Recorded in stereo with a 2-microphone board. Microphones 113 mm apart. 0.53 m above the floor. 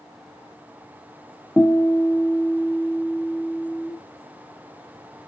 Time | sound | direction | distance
1.6 | a guitar | 15° left (ahead or behind) | 0.5 m